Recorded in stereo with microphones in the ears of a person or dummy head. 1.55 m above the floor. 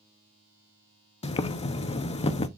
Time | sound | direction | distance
1.2 | boiling | 35° left (ahead or behind) | 0.7 m